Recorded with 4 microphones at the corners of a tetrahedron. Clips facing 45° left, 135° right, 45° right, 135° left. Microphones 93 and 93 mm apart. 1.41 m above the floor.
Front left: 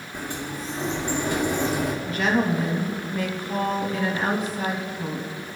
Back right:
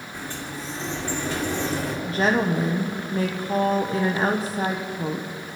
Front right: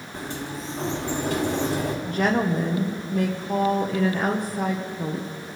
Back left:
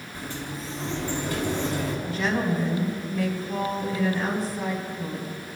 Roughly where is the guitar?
No guitar in this recording.